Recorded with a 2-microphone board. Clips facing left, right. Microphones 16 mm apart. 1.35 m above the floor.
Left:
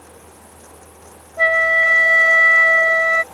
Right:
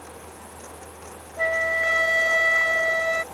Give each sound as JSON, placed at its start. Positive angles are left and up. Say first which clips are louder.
{"t": 1.4, "sound": "a flute", "louder": "left 9 dB", "side_deg": 55}